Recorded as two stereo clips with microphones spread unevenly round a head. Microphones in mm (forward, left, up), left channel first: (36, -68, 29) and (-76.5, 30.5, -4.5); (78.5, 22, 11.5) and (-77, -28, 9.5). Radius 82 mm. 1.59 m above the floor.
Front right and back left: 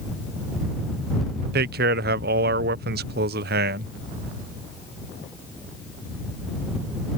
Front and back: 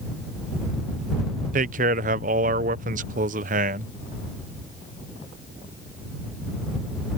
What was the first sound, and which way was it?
A man speaking, 155° left.